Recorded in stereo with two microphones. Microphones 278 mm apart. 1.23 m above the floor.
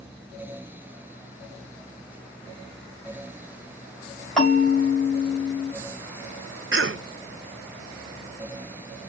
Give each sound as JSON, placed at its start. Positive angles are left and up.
{"t": 4.4, "sound": "a bell", "side_deg": 5, "distance_m": 3.0}
{"t": 6.7, "sound": "a cough", "side_deg": -50, "distance_m": 0.6}